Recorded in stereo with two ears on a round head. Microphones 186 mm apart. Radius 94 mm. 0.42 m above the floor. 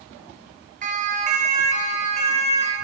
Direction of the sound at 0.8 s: 40° right (ahead or behind).